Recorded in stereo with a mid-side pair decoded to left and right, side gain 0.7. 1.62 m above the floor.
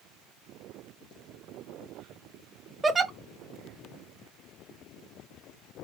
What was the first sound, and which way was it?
A giggle, 15° right.